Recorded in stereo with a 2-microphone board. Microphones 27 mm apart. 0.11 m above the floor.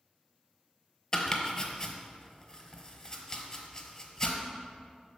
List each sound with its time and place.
1.1 s chopping: 25° left (ahead or behind), 1.0 m